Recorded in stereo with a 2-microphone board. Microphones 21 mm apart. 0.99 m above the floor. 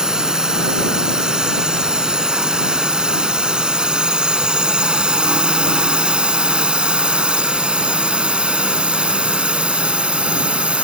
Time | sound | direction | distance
0.0 | a drone | 35° right (ahead or behind) | ?